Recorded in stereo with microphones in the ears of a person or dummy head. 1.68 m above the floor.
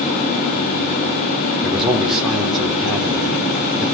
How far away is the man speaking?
About 4 m.